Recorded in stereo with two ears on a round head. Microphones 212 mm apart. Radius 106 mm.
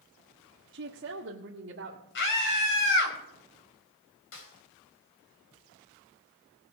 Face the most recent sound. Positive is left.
turn(degrees=60)  # may be behind; listen again after turning